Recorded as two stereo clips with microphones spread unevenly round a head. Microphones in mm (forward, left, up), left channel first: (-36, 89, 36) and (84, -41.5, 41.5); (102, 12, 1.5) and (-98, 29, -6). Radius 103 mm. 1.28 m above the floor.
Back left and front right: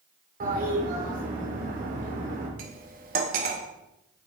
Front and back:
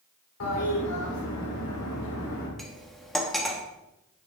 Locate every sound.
0.4 s a toilet flushing: 5° right, 3 m
2.6 s cutlery clinking: 95° right, 1.0 m